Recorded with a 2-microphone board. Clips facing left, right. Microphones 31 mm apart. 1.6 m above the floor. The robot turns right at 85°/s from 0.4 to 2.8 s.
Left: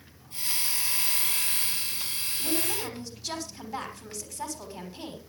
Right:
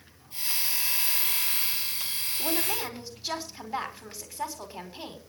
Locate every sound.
2.4 s a woman speaking: 55° right, 5.5 m; by 5.2 s 20° right, 5.5 m